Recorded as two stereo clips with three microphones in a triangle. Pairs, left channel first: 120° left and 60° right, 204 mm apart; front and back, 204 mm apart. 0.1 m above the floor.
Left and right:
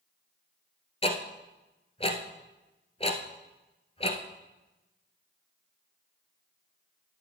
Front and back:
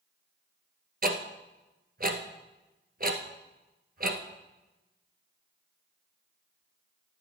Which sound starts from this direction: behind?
Ticking, at 1.0 s.